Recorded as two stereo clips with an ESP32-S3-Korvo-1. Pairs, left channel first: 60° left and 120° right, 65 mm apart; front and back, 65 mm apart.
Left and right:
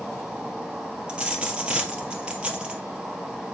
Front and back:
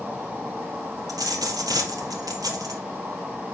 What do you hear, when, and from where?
0.0 s an insect: 175° left, 2.5 m
1.1 s a dropped coin: 165° left, 1.9 m